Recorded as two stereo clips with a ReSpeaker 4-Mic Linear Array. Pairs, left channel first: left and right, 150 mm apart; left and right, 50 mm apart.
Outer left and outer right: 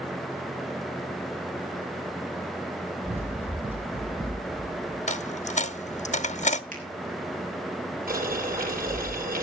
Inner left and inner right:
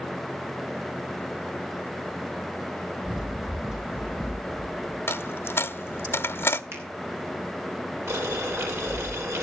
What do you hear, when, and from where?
3.0 s running footsteps: 10° right (ahead or behind), 1.6 m; by 5.0 s 15° right (ahead or behind), 3.5 m
5.1 s a dropped coin: 50° left (ahead or behind), 0.7 m
6.7 s a finger snap: 60° right (ahead or behind), 4.5 m
8.1 s boiling: 75° right (ahead or behind), 7 m